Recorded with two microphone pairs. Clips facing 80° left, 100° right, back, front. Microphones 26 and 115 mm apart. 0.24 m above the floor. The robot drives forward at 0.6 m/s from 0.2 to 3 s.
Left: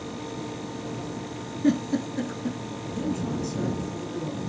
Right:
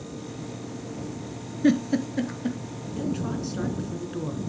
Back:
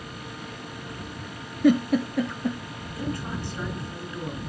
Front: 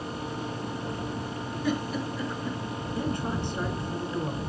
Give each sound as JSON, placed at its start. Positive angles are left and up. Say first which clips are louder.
{"t": 1.6, "sound": "a giggle", "louder": "right 2 dB, back 10 dB", "azimuth_deg": -155, "distance_m": 1.3}
{"t": 3.0, "sound": "a woman speaking", "louder": "even, front 1 dB", "azimuth_deg": -65, "distance_m": 3.5}